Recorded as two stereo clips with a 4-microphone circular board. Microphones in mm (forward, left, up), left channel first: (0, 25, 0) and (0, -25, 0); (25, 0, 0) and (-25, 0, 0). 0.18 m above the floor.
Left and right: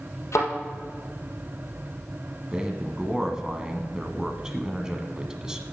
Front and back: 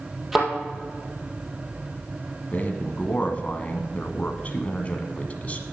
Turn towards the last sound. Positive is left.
turn(degrees=-25)